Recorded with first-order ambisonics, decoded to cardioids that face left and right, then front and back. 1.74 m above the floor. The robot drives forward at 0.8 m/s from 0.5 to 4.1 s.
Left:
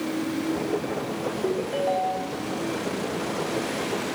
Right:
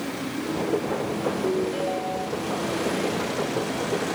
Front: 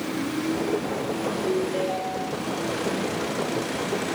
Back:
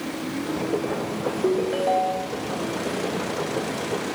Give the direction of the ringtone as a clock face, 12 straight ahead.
7 o'clock.